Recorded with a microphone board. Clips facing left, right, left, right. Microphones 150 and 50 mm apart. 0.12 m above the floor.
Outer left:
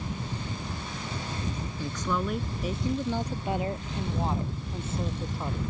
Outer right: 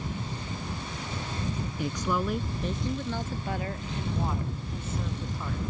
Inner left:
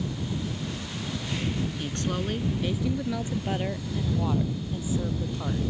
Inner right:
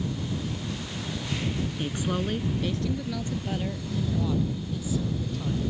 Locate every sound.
1.8 s a woman speaking: 15° right (ahead or behind); by 5.6 s 30° left (ahead or behind)